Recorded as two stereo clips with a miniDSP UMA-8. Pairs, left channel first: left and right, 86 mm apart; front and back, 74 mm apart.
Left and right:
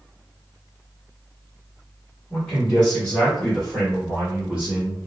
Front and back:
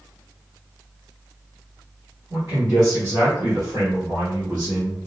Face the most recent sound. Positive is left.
turn(degrees=-165)